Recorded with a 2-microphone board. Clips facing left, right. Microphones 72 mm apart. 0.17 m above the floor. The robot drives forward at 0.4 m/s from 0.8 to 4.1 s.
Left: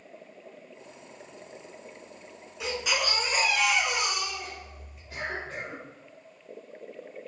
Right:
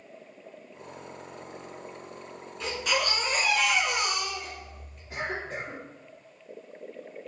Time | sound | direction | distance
2.6 | a baby crying | 10° left (ahead or behind) | 1.1 m
5.1 | a cough | 30° right (ahead or behind) | 1.9 m